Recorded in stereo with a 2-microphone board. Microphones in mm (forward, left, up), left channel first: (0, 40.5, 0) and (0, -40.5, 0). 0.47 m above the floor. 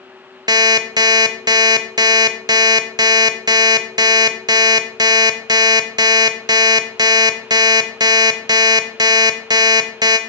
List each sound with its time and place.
0.5 s an alarm clock: 55° right (ahead or behind), 0.7 m